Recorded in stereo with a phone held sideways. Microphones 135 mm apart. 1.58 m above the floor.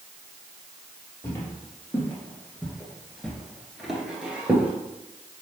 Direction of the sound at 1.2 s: 20° left (ahead or behind).